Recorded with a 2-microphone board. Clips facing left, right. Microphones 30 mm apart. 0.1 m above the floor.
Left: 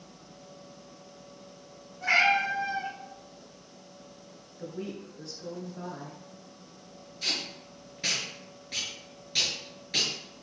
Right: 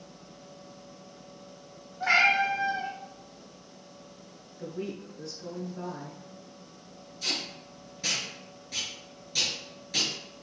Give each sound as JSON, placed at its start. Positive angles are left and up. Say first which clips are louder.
{"t": 2.0, "sound": "a cat meowing", "louder": "right 1 dB", "side_deg": -50, "distance_m": 1.8}
{"t": 4.6, "sound": "a woman speaking", "louder": "right 2 dB", "side_deg": 5, "distance_m": 1.1}
{"t": 7.2, "sound": "tape being pulled", "louder": "even", "side_deg": 30, "distance_m": 1.4}